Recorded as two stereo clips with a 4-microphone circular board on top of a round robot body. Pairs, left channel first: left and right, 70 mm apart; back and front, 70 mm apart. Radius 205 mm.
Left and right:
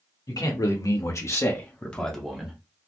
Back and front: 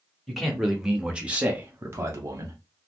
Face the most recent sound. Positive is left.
turn(degrees=-10)